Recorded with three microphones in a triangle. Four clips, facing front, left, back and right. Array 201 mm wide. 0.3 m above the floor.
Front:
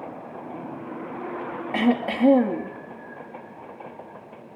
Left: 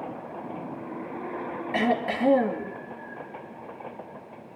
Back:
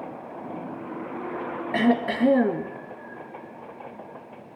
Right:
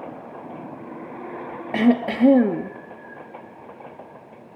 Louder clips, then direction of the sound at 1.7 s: Right 7 dB, even; 105° right.